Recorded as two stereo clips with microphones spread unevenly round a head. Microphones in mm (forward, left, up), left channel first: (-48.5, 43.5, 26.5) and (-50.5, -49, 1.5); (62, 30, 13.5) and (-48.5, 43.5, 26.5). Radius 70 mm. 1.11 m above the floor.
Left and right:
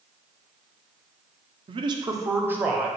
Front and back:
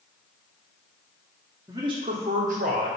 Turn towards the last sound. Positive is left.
turn(degrees=-170)